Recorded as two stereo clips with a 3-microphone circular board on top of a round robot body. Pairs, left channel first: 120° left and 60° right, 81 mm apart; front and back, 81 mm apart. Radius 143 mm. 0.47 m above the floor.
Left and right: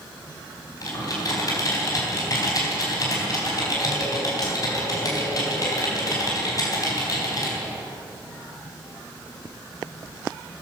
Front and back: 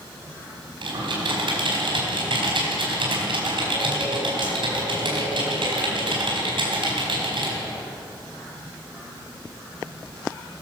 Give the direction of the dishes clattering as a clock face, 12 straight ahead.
No dishes clattering in this recording.